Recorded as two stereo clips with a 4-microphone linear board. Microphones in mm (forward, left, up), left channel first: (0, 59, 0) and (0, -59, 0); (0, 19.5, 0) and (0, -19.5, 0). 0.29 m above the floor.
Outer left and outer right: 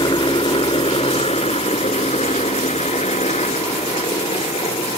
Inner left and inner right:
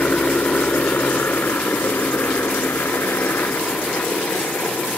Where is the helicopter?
45° left (ahead or behind); by 5.0 s 65° left (ahead or behind).